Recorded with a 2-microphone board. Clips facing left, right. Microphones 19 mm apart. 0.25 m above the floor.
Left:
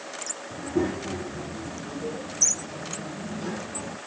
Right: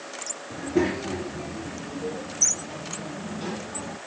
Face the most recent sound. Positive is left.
turn(degrees=-30)  # may be behind; listen again after turning